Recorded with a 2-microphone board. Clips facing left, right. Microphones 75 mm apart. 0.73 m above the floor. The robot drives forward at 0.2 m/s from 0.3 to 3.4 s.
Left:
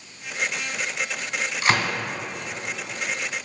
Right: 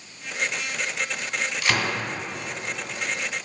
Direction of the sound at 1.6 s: 25° left (ahead or behind).